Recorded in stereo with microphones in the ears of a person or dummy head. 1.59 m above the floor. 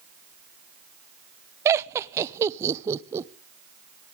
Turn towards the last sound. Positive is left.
turn(degrees=-15)  # may be behind; listen again after turning